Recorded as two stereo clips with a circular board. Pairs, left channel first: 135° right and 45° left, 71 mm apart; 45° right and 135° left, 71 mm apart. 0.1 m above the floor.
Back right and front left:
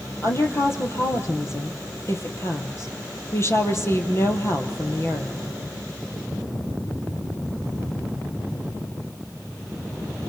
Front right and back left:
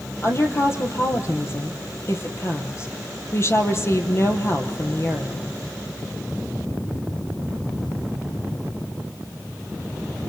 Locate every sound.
0.2 s a woman speaking: 90° right, 2.5 m